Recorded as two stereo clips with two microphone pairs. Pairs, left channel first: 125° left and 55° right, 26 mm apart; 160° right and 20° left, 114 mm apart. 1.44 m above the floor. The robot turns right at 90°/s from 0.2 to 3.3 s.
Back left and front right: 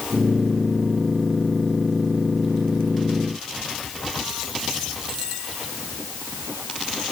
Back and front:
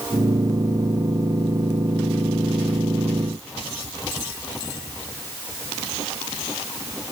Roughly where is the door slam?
No door slam in this recording.